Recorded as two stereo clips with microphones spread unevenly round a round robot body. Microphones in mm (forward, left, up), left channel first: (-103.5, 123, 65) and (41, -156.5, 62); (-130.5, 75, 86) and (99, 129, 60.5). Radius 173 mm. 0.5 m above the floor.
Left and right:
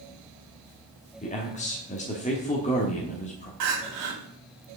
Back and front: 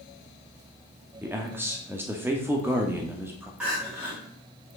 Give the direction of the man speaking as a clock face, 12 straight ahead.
10 o'clock.